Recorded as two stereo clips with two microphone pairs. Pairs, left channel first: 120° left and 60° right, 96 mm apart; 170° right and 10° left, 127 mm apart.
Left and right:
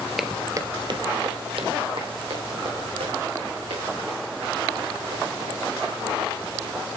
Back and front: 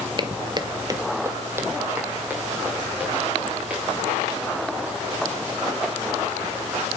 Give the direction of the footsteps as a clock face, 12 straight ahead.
11 o'clock.